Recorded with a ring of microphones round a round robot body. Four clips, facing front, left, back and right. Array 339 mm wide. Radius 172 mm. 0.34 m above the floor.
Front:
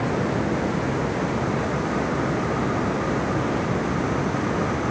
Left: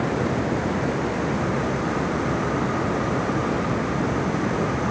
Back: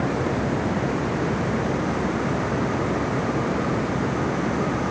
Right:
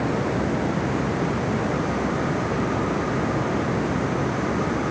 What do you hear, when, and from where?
Only background noise.